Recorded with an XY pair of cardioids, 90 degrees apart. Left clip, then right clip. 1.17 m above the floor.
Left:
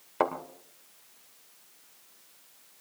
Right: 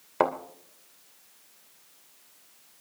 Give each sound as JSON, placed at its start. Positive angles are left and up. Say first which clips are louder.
{"t": 0.2, "sound": "a thud", "louder": "right 3 dB", "azimuth_deg": -30, "distance_m": 2.0}